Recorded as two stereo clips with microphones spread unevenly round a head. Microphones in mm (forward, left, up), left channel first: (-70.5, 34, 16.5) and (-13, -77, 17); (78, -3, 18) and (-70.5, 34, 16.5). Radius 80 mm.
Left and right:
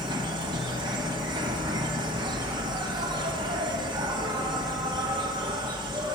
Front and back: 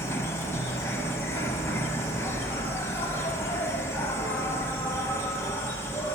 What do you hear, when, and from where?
0.0 s an insect: 75° right, 0.8 m